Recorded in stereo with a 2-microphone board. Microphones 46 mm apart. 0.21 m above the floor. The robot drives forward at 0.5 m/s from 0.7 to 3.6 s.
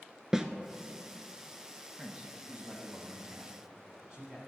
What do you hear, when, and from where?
0.3 s a snare drum: 10° right (ahead or behind), 0.6 m
2.0 s a man speaking: 25° right (ahead or behind), 1.1 m; by 4.4 s 20° right (ahead or behind), 1.3 m